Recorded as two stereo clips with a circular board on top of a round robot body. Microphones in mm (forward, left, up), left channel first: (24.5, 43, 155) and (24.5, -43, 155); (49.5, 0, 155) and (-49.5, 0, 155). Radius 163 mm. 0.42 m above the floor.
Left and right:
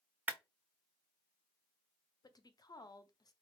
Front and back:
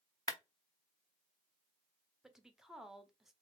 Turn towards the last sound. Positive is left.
turn(degrees=95)